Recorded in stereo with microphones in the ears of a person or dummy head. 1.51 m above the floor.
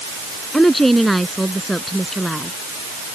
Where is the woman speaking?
5° left (ahead or behind).